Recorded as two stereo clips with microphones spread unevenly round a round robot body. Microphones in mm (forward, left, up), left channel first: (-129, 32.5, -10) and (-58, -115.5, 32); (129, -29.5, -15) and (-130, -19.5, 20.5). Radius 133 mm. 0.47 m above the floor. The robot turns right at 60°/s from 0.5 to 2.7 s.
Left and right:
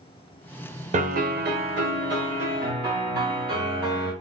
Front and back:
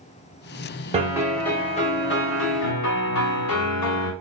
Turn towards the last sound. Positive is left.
turn(degrees=-10)